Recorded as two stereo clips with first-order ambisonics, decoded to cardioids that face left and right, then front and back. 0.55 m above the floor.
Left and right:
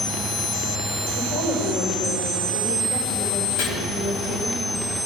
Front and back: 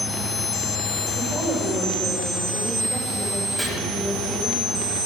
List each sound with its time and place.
1.2 s a woman speaking: 85° left, 2 m
3.6 s chopping: 90° left, 3.5 m